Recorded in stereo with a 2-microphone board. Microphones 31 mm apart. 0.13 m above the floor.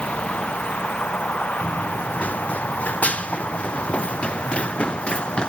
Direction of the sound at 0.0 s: 40° left (ahead or behind).